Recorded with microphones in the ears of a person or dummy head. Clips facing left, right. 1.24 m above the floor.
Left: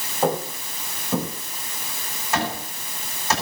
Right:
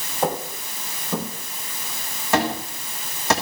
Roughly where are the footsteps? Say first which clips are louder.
Left 2 dB; centre.